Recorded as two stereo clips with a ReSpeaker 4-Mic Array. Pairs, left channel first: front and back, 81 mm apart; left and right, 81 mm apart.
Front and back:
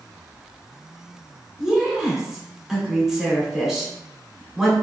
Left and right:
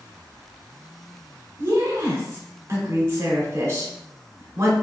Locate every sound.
1.6 s a woman speaking: 100° right, 1.0 m